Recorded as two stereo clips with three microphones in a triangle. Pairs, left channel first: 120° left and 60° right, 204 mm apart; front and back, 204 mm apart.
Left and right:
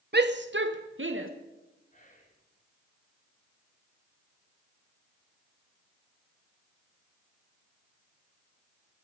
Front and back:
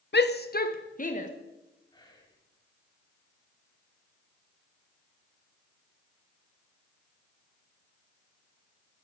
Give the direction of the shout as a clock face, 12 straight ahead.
1 o'clock.